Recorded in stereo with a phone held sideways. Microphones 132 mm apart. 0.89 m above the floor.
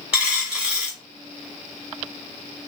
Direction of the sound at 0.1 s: 10° right (ahead or behind).